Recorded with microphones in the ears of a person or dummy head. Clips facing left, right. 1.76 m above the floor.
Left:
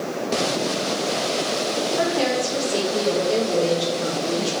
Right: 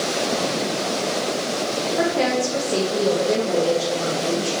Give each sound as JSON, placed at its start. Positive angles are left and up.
{"t": 2.0, "sound": "a woman speaking", "side_deg": -35, "distance_m": 1.2}